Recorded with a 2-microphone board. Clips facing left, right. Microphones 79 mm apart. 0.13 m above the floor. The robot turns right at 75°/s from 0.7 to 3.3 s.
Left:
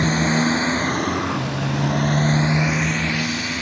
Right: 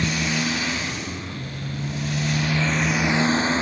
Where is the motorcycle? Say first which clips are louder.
Left 6 dB; 35° left (ahead or behind); by 3.6 s 30° right (ahead or behind).